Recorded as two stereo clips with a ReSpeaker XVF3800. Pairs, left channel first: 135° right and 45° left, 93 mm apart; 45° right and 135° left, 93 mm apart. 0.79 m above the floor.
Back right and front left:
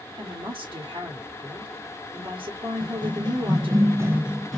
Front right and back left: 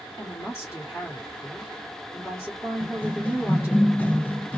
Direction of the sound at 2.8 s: 30° left.